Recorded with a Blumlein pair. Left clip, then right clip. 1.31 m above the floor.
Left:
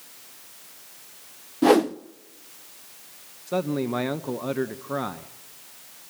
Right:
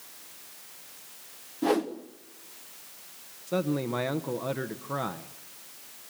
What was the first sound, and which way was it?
A whoosh, 65° left.